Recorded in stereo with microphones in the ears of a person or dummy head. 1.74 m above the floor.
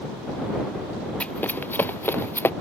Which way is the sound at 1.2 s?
5° left (ahead or behind).